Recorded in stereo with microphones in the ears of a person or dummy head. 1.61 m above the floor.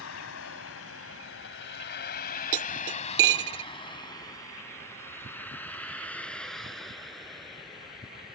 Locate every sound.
0.0 s a vehicle: 75° left (ahead or behind); by 8.4 s centre (ahead or behind)
2.5 s cutlery clinking: 15° right (ahead or behind)